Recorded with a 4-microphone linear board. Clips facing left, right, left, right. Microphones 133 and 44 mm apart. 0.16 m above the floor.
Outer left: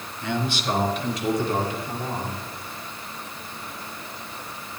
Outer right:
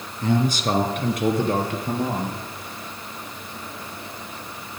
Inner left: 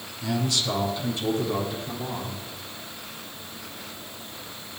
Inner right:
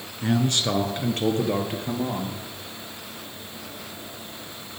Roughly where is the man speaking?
Right.